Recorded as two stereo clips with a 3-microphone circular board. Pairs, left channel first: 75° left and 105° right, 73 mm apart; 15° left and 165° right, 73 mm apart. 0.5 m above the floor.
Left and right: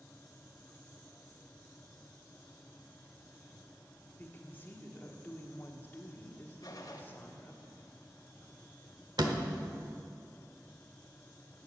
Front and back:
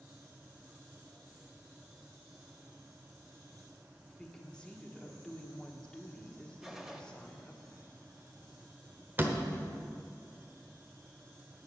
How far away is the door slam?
About 1.0 m.